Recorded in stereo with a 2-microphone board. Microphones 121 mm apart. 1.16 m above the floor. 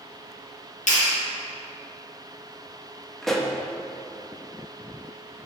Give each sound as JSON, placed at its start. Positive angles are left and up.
{"t": 0.9, "sound": "a clap", "side_deg": 80, "distance_m": 1.6}
{"t": 3.2, "sound": "a pop", "side_deg": 0, "distance_m": 0.7}